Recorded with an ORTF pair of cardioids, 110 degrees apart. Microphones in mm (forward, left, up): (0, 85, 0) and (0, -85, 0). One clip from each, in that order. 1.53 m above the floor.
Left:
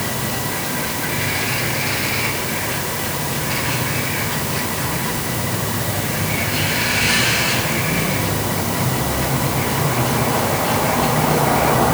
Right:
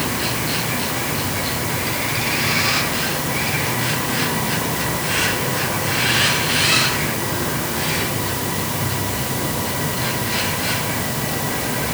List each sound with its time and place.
Only background noise.